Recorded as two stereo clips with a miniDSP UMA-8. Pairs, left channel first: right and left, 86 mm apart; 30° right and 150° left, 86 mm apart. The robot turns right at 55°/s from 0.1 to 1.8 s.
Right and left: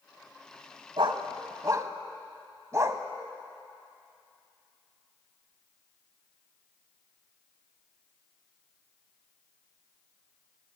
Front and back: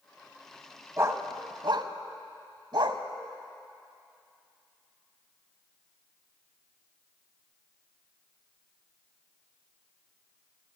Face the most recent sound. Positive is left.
turn(degrees=140)